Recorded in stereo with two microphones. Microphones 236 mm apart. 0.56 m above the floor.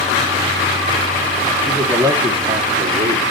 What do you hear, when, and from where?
1.7 s a man speaking: centre (ahead or behind), 1.1 m; by 3.2 s 40° right (ahead or behind), 1.1 m